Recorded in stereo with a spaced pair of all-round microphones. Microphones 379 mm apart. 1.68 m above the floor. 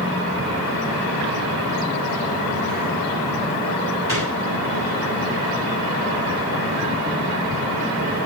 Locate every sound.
4.1 s a gunshot: 60° right (ahead or behind), 7.5 m